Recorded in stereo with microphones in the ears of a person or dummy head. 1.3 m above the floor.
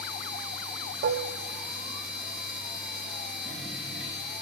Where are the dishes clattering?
55° right (ahead or behind), 0.7 m.